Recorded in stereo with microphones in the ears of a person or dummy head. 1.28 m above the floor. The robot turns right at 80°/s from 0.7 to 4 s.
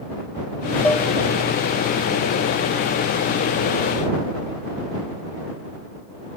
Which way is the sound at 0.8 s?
5° left (ahead or behind).